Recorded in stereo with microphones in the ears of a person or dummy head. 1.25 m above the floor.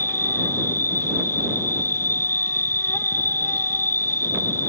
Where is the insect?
15° left (ahead or behind).